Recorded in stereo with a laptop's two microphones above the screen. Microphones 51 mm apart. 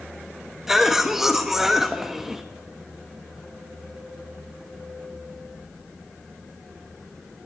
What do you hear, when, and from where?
0.7 s a cough: 5° right (ahead or behind), 1.2 m